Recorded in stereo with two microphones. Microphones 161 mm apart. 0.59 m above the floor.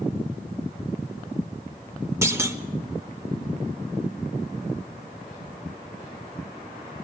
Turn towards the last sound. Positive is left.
turn(degrees=-15)  # may be behind; listen again after turning